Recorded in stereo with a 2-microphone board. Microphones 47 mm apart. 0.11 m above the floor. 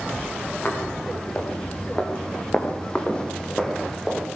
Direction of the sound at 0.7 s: 35° left (ahead or behind).